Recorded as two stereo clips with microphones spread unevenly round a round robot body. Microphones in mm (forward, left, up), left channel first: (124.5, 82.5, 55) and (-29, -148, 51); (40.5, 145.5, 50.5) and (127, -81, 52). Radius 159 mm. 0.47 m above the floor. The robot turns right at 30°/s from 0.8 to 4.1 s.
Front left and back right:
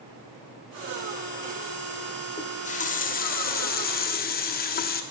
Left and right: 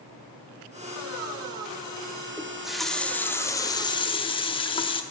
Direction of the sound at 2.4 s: 10° left.